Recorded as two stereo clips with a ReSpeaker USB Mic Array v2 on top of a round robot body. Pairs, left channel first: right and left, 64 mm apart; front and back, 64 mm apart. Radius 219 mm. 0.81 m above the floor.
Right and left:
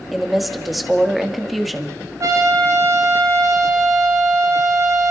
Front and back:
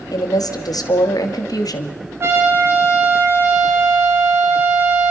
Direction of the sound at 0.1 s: Straight ahead.